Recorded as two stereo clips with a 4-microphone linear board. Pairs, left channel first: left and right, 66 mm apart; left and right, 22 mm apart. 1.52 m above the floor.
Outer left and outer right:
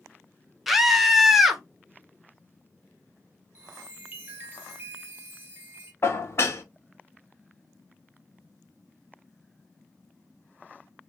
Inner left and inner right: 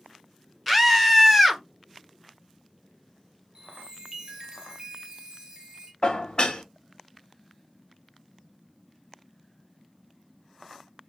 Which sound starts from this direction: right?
A chime, at 3.5 s.